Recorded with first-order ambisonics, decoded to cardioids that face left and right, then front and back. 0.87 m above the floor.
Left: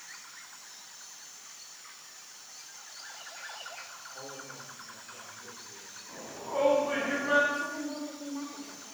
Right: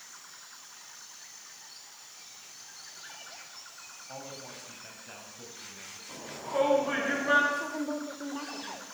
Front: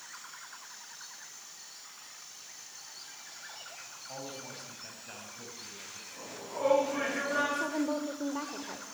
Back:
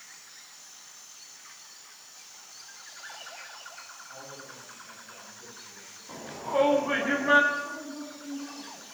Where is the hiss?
No hiss in this recording.